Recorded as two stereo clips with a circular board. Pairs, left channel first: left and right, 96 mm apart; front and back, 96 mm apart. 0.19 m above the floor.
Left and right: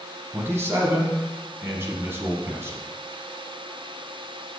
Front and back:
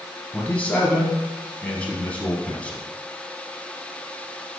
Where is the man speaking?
60° right, 1.2 m.